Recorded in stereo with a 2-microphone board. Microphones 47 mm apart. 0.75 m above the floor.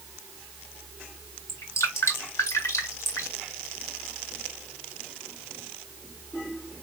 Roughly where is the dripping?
Left.